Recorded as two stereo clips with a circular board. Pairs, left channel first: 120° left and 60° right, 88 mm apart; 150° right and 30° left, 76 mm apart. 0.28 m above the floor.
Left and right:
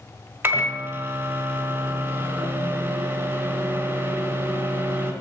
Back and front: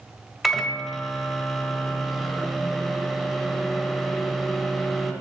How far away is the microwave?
About 1.3 m.